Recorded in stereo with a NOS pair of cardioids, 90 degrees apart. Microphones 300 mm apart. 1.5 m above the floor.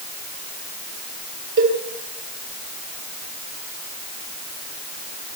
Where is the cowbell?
40° right, 6 m.